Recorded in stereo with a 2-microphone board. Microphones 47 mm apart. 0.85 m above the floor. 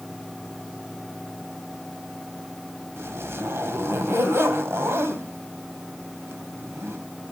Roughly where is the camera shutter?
No camera shutter in this recording.